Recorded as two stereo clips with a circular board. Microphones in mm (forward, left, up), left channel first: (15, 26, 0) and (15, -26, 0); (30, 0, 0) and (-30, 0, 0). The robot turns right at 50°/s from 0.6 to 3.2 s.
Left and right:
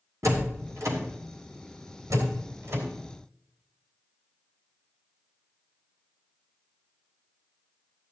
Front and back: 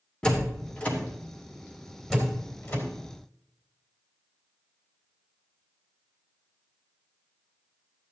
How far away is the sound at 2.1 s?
About 3 m.